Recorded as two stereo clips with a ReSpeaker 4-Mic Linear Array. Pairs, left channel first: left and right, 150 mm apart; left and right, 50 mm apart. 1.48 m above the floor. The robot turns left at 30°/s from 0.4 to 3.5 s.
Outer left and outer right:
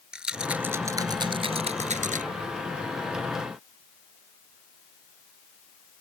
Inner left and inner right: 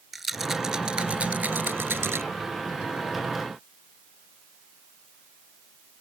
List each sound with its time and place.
0.1 s a rattle: 5° right (ahead or behind); by 2.2 s 60° right (ahead or behind)